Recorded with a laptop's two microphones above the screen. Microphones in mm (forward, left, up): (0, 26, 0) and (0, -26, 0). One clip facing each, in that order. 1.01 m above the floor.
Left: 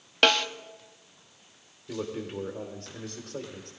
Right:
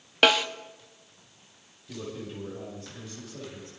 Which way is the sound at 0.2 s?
5° right (ahead or behind).